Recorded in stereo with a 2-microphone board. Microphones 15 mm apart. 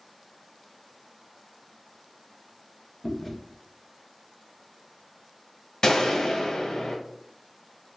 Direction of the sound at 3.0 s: Centre (ahead or behind).